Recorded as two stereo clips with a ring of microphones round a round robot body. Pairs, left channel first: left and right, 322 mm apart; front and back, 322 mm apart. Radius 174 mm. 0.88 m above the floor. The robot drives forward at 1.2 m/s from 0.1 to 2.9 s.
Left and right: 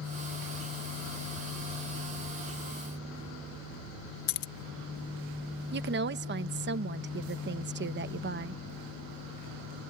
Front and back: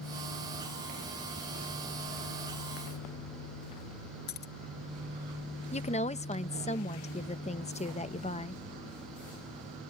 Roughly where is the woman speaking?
Ahead right.